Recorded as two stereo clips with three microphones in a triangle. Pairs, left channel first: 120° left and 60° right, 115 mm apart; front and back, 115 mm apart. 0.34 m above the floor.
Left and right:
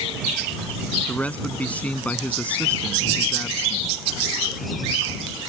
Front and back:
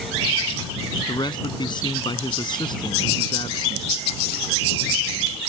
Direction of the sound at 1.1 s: 45° left.